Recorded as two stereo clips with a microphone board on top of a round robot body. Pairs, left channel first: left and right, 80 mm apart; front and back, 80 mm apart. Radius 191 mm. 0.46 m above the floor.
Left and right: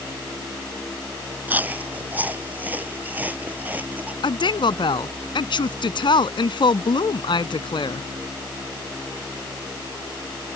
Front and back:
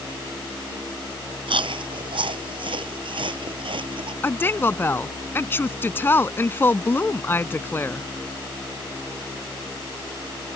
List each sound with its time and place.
1.5 s chewing: 160° right
4.2 s a woman speaking: 65° left